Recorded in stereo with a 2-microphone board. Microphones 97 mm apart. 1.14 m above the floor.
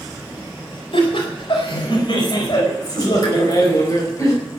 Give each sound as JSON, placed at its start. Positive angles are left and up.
{"t": 0.9, "sound": "laughter", "side_deg": 65, "distance_m": 4.5}